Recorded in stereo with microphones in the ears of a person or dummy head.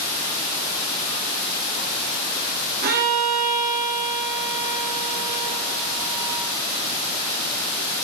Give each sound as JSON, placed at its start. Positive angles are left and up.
{"t": 2.8, "sound": "a violin", "side_deg": -55, "distance_m": 3.0}